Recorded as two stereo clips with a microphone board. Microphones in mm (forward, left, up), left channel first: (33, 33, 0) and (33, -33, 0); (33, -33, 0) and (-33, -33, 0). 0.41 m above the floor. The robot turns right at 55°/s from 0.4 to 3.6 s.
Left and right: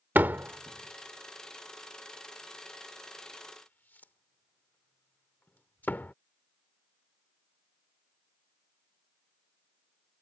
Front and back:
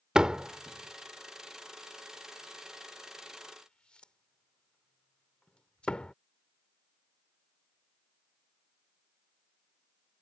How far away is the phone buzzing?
No phone buzzing in this recording.